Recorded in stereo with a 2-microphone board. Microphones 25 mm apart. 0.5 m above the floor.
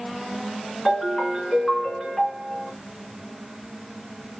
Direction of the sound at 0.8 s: 25° left (ahead or behind).